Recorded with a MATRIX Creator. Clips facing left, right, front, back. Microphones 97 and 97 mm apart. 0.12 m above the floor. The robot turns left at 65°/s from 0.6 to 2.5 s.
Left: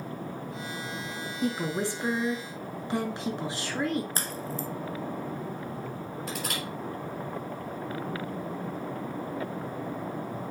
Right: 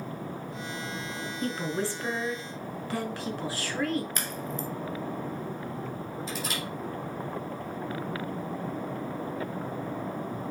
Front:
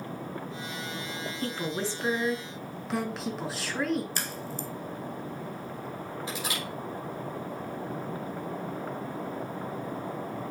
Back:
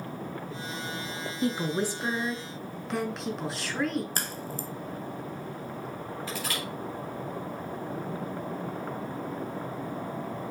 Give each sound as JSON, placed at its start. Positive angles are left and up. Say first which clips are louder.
{"t": 1.4, "sound": "a woman speaking", "louder": "left 2 dB, back 5 dB", "azimuth_deg": 155, "distance_m": 1.1}
{"t": 4.2, "sound": "a crack", "louder": "even, even", "azimuth_deg": 140, "distance_m": 0.7}
{"t": 6.3, "sound": "crushing", "louder": "left 1 dB, even", "azimuth_deg": 75, "distance_m": 5.0}